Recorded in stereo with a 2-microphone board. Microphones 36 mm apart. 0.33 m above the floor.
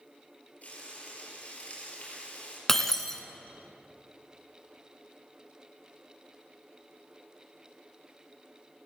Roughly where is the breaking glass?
Centre.